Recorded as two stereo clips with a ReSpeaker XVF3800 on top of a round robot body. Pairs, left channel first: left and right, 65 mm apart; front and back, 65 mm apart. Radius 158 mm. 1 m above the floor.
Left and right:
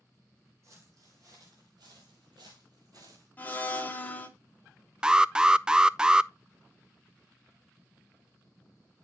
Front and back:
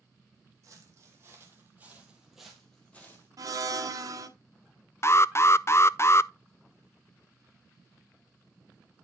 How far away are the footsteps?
About 2 m.